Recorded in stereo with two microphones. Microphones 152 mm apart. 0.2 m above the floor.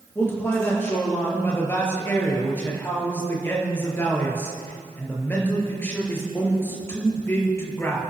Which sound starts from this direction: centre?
A man speaking, at 0.1 s.